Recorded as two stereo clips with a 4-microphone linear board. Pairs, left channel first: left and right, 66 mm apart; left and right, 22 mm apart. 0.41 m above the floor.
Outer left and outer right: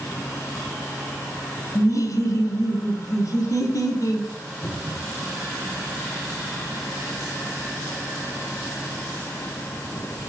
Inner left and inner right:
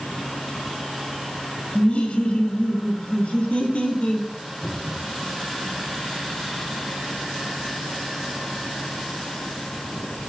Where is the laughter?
55° left (ahead or behind), 1.9 m.